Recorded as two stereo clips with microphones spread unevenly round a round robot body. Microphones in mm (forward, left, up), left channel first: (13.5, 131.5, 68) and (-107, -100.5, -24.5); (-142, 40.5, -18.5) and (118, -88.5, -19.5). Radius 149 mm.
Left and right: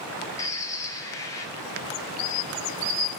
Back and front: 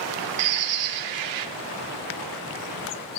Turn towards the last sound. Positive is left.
turn(degrees=-25)